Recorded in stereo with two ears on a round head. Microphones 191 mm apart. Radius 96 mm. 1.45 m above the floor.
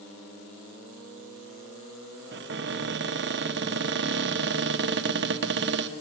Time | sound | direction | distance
2.3 | a cupboard door | 55° right (ahead or behind) | 1.0 m